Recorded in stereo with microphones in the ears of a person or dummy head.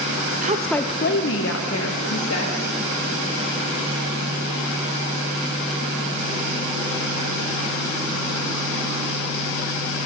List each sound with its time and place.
0.4 s a woman speaking: 45° right (ahead or behind), 0.7 m; by 2.6 s 80° left, 3 m